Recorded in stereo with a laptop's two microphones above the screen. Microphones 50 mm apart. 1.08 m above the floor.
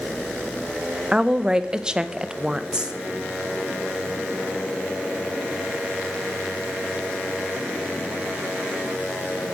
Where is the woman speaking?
15° right (ahead or behind), 0.6 m.